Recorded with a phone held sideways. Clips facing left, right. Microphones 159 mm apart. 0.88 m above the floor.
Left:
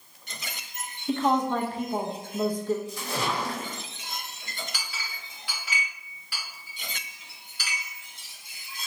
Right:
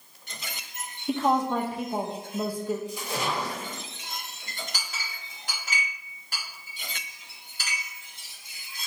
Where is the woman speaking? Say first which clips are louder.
Even; 10° right (ahead or behind), 0.6 m.